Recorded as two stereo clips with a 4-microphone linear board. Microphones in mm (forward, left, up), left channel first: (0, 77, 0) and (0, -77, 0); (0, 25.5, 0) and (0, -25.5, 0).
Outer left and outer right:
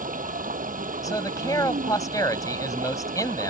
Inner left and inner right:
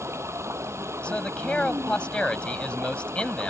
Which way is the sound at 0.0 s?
60° right (ahead or behind).